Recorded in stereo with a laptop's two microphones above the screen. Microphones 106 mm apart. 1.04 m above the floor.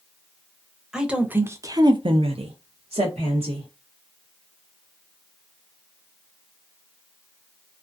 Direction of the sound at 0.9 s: 5° right (ahead or behind).